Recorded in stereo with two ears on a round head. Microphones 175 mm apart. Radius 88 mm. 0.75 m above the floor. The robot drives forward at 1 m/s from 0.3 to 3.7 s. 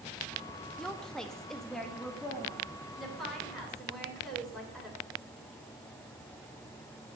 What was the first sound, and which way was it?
A woman speaking, 5° left (ahead or behind).